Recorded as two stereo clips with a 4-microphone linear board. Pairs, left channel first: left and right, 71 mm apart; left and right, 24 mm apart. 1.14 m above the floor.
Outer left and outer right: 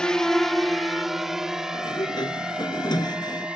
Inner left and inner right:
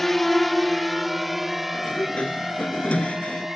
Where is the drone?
10° left (ahead or behind); by 3.6 s 15° right (ahead or behind).